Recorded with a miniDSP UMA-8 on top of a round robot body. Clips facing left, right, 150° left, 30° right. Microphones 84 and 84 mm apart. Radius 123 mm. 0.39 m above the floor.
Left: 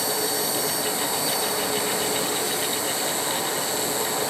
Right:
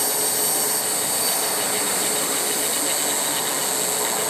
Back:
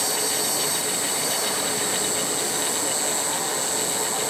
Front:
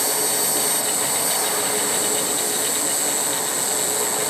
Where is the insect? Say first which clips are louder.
Left 1 dB, front 2 dB; 75° right, 6.5 m.